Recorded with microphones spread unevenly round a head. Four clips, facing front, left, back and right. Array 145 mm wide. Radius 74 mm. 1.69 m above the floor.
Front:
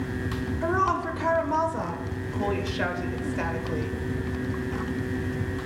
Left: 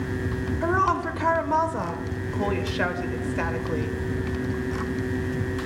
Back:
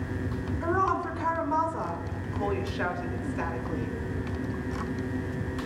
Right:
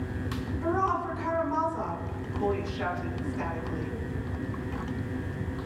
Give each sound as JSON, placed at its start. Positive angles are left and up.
{"t": 0.6, "sound": "a woman speaking", "azimuth_deg": 70, "distance_m": 1.4}